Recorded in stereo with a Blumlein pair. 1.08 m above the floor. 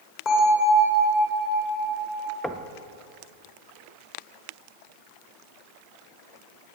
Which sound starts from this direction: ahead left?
A bell, at 0.2 s.